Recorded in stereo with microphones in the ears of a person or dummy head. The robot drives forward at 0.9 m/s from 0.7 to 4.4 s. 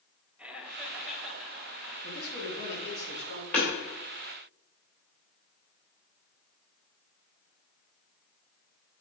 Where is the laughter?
10° right (ahead or behind), 0.9 m; by 1.9 s 5° right (ahead or behind), 2 m.